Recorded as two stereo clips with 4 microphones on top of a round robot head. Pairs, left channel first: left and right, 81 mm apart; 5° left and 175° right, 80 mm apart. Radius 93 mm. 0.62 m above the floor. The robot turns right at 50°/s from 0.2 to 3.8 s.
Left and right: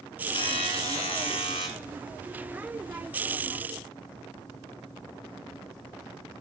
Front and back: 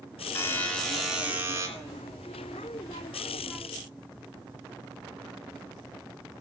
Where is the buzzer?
65° left, 2.5 m; by 1.7 s 130° left, 2.5 m.